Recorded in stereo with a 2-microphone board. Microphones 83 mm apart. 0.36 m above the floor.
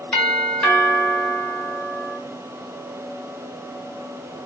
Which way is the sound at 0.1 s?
15° left (ahead or behind).